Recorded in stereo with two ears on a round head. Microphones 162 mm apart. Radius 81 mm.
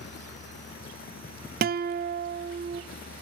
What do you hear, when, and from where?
1.6 s a guitar: 50° right (ahead or behind), 0.6 m